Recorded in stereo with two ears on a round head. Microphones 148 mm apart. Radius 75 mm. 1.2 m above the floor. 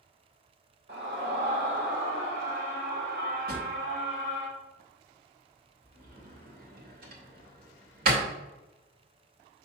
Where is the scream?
70° right (ahead or behind), 2.0 m.